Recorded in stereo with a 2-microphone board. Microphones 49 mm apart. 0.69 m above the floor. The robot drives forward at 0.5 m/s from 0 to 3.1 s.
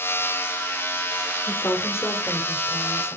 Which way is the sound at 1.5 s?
70° left (ahead or behind).